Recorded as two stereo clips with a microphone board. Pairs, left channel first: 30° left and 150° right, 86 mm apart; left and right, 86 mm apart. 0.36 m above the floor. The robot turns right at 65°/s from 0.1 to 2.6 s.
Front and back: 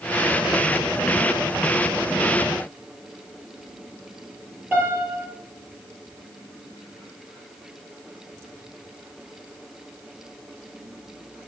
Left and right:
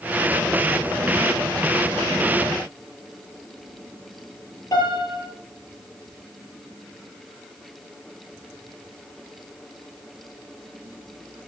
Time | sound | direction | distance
4.7 | a piano | 135° left | 5.5 m